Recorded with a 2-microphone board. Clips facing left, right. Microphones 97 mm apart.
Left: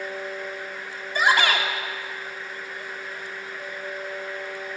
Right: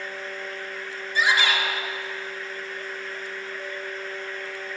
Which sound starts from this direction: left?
A shout, at 1.1 s.